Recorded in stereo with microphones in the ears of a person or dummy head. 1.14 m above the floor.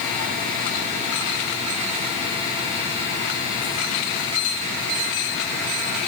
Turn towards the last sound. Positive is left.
No sound to turn to.